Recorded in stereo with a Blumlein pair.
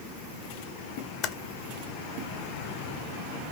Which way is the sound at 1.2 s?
30° left.